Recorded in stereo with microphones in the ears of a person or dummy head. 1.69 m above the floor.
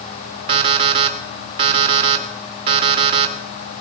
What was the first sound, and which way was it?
An alarm clock, 30° right (ahead or behind).